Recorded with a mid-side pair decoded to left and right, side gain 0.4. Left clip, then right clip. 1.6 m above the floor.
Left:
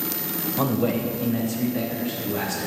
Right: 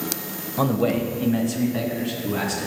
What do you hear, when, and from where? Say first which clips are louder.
0.6 s a man speaking: right 3 dB; 15° right, 1.3 m; by 2.7 s 55° right, 3.5 m